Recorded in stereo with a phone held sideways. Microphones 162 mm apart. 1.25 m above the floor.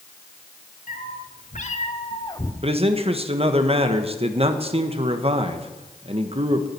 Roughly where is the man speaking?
Right.